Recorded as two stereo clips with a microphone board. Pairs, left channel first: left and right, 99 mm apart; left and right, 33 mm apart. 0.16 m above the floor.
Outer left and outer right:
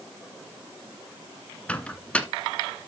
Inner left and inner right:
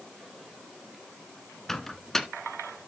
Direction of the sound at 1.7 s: 10° left (ahead or behind).